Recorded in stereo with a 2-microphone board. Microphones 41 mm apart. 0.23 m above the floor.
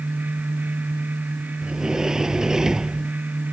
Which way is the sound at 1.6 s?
15° right (ahead or behind).